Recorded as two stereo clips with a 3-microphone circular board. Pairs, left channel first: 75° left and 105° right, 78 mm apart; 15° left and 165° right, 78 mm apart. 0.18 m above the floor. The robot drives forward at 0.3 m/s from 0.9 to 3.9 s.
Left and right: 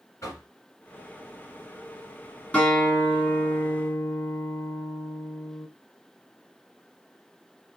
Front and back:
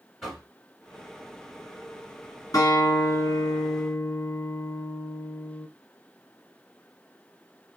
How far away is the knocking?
About 1.5 m.